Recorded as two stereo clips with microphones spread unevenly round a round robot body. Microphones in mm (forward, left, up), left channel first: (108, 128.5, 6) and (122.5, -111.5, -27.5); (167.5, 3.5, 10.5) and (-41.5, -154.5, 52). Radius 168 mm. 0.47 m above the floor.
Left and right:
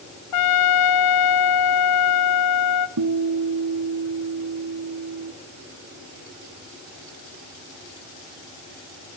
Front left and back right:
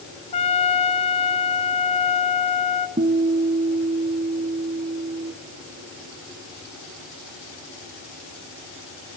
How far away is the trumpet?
About 0.6 m.